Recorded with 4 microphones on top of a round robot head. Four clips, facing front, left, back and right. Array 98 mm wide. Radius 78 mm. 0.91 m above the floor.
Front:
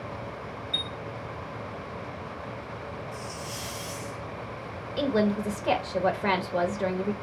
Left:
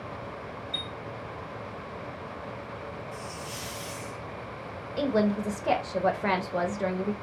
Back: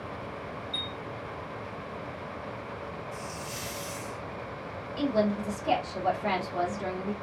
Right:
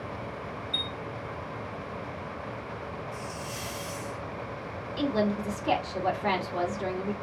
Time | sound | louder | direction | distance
0.7 | a chime | right 2 dB, front 2 dB | 45° left | 0.8 m
3.1 | a hiss | right 1 dB, front 1 dB | 115° left | 2.5 m
5.0 | a woman speaking | left 2 dB, front 2 dB | 50° left | 1.2 m